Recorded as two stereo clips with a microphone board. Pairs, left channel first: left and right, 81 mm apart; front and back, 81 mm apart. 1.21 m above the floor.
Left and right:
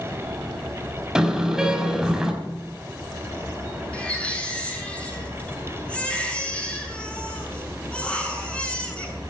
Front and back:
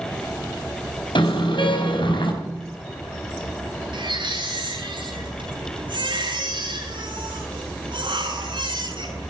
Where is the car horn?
5° right, 4.5 m.